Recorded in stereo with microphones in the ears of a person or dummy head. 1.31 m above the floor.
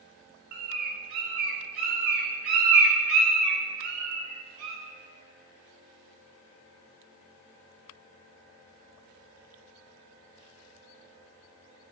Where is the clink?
I don't hear a clink.